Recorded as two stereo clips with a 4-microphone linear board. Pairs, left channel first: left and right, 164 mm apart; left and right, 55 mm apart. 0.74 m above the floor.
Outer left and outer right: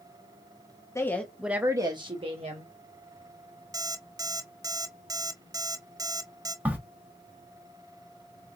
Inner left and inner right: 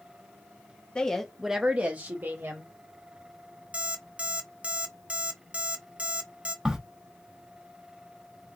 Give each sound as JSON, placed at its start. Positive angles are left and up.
{"t": 0.9, "sound": "a woman speaking", "side_deg": 20, "distance_m": 0.8}
{"t": 3.7, "sound": "an alarm clock", "side_deg": -20, "distance_m": 0.6}
{"t": 6.7, "sound": "a crack", "side_deg": -10, "distance_m": 0.9}